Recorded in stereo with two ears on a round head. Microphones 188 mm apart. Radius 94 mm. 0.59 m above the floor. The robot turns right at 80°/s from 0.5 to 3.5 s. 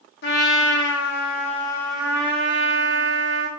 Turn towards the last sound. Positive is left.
turn(degrees=-55)